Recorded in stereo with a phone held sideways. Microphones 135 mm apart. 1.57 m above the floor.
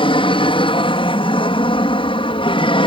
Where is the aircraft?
40° left (ahead or behind).